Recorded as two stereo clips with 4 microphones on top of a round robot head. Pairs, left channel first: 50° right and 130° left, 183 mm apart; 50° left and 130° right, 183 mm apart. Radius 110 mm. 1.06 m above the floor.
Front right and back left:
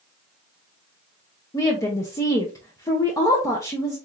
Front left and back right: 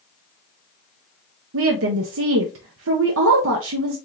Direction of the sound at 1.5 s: 125° right.